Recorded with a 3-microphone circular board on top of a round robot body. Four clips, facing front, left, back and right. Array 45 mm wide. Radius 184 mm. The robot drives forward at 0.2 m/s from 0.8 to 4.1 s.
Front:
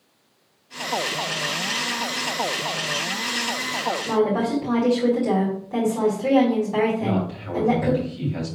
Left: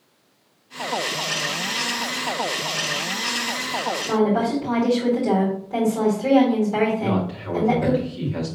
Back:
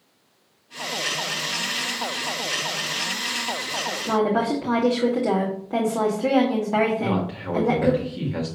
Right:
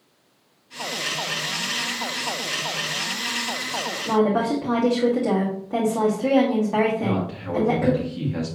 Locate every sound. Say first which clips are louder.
4.0 s a woman speaking: right 1 dB, back 1 dB; 160° right, 2.5 m
7.0 s a man speaking: left 1 dB, even; 170° right, 1.9 m